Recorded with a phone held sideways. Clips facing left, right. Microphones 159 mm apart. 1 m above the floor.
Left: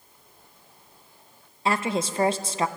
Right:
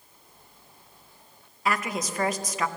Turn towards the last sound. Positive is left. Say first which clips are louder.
# left 3 dB
turn(degrees=30)  # may be behind; listen again after turning